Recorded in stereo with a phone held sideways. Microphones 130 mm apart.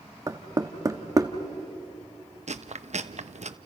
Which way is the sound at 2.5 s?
65° right (ahead or behind).